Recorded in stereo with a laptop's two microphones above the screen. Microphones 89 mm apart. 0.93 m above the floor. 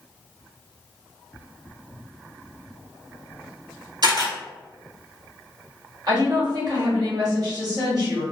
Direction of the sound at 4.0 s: 55° right (ahead or behind).